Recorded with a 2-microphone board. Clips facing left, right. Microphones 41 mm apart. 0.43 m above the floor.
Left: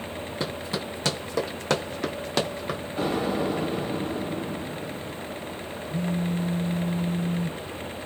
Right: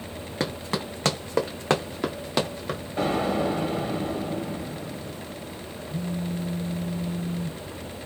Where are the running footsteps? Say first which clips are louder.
Right 3 dB; 60° right (ahead or behind), 1.8 m; by 2.8 s 10° left (ahead or behind), 1.4 m.